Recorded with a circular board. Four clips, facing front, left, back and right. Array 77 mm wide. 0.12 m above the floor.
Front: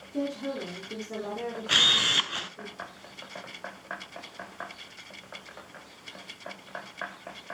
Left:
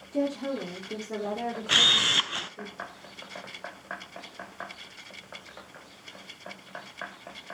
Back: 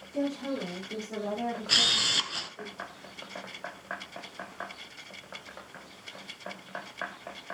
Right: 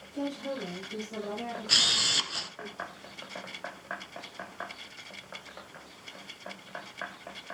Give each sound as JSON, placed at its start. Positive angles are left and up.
{"t": 0.1, "sound": "a woman speaking", "azimuth_deg": 75, "distance_m": 5.5}
{"t": 1.7, "sound": "a camera shutter", "azimuth_deg": 55, "distance_m": 0.7}